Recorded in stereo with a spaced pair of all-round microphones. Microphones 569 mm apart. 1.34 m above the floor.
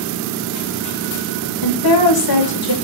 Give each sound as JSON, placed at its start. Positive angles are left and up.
{"t": 1.6, "sound": "a woman speaking", "side_deg": 40, "distance_m": 0.7}